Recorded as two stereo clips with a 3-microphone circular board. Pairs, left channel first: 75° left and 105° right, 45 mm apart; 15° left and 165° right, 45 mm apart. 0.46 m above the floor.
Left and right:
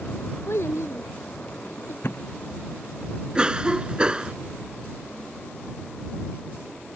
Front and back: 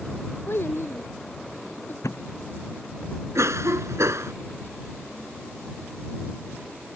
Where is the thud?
35° left.